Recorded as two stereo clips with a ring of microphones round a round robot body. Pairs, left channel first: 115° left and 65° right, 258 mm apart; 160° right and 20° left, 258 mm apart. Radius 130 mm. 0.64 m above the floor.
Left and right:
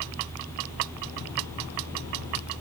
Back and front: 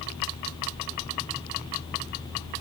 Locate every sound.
Only background noise.